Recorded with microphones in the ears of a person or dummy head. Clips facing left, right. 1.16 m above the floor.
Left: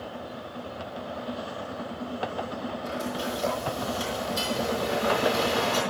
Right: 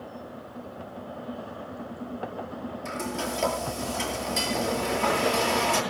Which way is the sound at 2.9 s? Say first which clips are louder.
Right 1 dB; 80° right.